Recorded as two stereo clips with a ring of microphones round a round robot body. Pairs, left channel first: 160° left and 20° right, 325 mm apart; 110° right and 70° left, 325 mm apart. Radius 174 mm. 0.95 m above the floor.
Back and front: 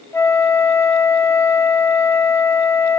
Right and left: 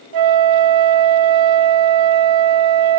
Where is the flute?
75° left, 0.6 m.